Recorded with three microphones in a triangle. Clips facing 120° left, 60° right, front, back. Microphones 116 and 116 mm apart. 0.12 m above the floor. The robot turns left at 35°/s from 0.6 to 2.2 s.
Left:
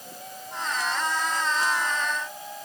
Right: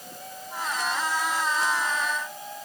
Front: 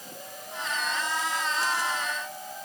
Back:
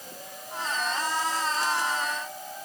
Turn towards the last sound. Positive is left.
No sound to turn to.